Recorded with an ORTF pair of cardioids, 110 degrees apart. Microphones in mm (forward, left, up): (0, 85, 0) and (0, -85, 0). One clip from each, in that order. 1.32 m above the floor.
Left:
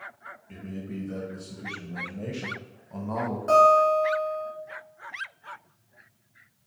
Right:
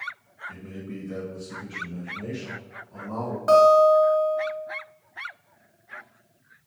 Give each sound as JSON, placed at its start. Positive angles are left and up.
{"t": 0.5, "sound": "a man speaking", "azimuth_deg": -25, "distance_m": 1.6}
{"t": 3.5, "sound": "a guitar", "azimuth_deg": -40, "distance_m": 1.8}